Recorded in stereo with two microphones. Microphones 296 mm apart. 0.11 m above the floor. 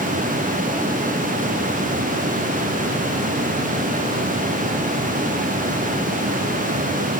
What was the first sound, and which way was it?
Only background noise.